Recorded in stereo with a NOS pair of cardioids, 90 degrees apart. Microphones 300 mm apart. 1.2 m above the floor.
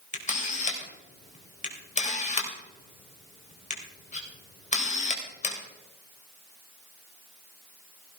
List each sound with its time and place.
0.1 s a camera shutter: 25° left, 3.5 m